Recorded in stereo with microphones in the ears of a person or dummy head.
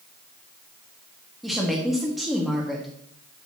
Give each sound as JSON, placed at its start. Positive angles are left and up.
{"t": 1.4, "sound": "a woman speaking", "side_deg": 5, "distance_m": 1.9}